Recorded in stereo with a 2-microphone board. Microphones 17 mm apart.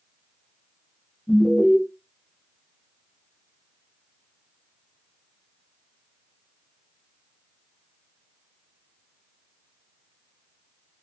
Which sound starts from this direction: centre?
An alarm, at 1.3 s.